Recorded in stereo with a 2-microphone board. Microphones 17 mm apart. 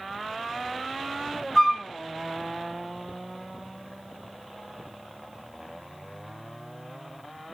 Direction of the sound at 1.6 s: 40° left (ahead or behind).